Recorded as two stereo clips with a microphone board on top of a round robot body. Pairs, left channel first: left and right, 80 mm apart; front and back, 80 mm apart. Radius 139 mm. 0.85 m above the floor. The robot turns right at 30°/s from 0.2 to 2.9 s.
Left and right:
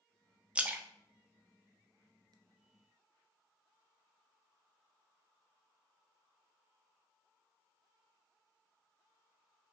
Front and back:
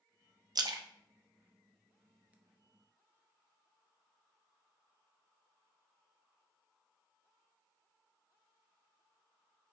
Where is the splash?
165° right, 0.6 m; by 2.3 s 110° right, 0.6 m.